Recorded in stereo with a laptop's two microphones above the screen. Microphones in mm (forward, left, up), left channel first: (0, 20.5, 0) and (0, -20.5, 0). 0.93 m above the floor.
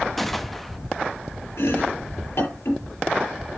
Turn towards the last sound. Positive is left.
turn(degrees=85)